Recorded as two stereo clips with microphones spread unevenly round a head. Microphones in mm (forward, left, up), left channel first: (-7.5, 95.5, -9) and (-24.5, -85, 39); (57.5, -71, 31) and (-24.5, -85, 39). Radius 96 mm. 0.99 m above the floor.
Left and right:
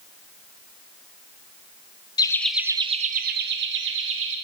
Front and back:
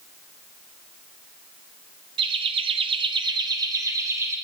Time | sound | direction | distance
2.2 | laughter | 150° left | 1.1 m